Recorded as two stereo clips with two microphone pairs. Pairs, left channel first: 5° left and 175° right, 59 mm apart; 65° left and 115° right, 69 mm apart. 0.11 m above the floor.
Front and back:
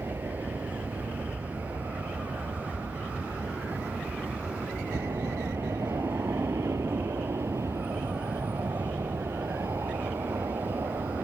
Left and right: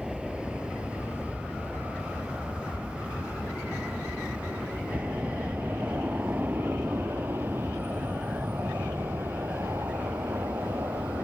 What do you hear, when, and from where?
0.0 s an aircraft: 165° left; by 11.2 s 160° right